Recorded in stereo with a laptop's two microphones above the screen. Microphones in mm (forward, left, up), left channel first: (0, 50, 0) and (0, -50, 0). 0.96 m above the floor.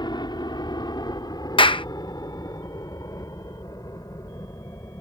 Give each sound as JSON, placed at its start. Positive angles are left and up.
{"t": 0.0, "sound": "a helicopter", "side_deg": 45}
{"t": 1.6, "sound": "a clap", "side_deg": 55}